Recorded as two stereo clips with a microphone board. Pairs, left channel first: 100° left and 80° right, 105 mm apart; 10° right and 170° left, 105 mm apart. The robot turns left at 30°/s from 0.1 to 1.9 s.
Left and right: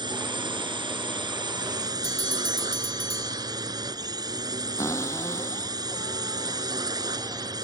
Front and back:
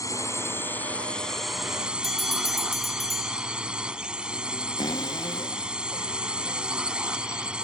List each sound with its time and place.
0.0 s a drone: 60° right; by 7.7 s 110° right
2.0 s a bell: 80° left
4.8 s a cupboard door: 40° left